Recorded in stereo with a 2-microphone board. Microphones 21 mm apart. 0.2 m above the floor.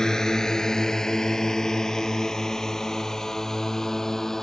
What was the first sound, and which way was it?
A drone, 30° left (ahead or behind).